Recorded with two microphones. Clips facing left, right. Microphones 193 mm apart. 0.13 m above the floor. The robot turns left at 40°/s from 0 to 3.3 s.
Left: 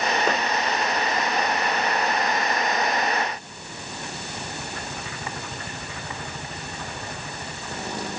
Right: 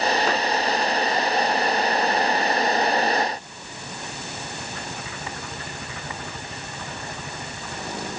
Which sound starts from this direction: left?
A clap, at 0.3 s.